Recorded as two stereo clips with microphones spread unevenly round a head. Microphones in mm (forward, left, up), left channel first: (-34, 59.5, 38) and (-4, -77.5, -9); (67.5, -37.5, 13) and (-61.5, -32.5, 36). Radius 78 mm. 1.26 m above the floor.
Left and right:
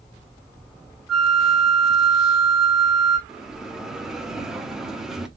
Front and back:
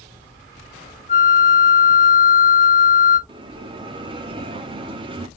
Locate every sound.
1.1 s a flute: 35° left, 1.0 m
3.3 s a bell: 175° left, 0.9 m